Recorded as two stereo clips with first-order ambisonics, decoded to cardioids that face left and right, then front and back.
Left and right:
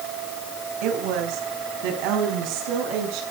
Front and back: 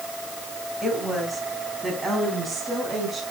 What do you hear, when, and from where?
0.8 s a woman speaking: 90° right, 3.5 m; by 3.2 s 100° right, 6 m